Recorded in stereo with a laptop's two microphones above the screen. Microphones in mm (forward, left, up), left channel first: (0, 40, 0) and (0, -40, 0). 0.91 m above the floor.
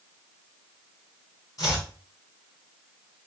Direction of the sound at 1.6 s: 50° left (ahead or behind).